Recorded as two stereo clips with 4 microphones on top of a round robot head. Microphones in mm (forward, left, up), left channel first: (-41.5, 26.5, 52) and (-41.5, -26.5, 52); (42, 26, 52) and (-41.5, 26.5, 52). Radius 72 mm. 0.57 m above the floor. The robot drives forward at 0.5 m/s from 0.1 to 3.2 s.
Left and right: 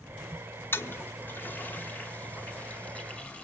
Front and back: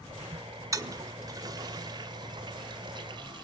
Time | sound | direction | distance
0.7 | a toilet flushing | 130° left | 1.7 m